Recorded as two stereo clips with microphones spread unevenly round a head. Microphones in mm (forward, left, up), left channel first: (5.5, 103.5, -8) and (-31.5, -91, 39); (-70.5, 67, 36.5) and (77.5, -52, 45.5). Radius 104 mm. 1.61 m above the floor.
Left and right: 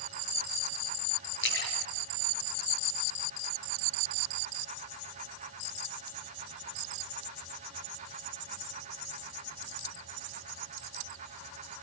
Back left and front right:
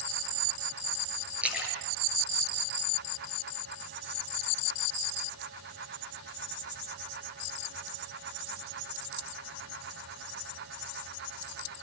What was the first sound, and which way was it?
A splash, 45° left.